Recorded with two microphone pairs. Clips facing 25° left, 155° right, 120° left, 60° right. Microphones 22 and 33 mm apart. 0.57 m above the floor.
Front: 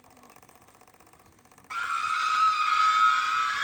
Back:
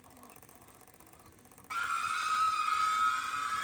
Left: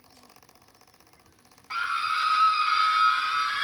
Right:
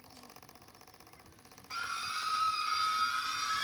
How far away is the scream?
About 0.8 m.